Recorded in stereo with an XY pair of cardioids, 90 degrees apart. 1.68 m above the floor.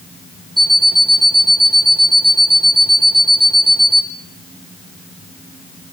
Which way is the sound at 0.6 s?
Straight ahead.